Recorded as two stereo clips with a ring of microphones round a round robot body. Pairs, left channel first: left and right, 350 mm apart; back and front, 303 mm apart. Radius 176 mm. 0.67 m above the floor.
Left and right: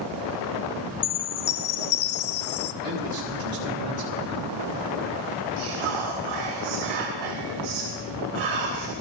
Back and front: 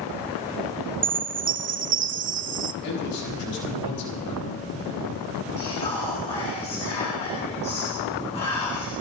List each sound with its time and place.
1.0 s a chime: 55° left, 0.7 m
2.8 s a man speaking: 140° right, 4 m
5.6 s whispering: 105° right, 3 m